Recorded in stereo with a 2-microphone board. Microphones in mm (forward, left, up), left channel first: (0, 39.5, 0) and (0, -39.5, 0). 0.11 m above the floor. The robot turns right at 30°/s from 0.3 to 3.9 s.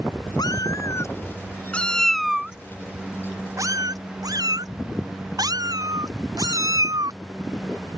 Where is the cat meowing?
55° left (ahead or behind); by 8.0 s 50° right (ahead or behind).